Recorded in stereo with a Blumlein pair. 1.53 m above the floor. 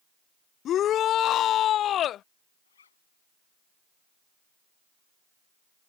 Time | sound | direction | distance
0.7 | a shout | 30° left | ?
2.6 | a zipper | 70° left | ?